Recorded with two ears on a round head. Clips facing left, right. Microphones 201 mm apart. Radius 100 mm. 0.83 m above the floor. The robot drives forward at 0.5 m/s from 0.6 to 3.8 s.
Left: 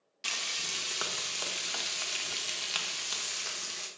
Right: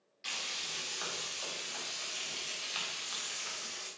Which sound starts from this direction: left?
Frying, at 0.2 s.